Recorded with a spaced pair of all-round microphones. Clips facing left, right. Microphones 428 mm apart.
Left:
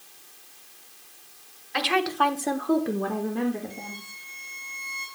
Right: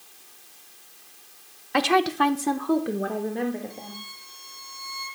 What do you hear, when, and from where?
1.7 s a woman speaking: 65° right (ahead or behind), 1.2 m; by 4.0 s 25° left (ahead or behind), 3 m
3.7 s a violin: 30° left (ahead or behind), 6 m